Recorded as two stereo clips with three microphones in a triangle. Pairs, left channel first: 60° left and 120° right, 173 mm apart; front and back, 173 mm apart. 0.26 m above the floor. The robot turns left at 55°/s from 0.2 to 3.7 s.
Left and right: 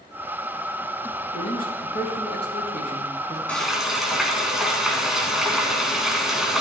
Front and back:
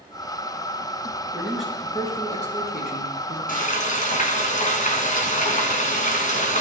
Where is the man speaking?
105° left, 4 m; by 3.4 s 5° right, 4 m.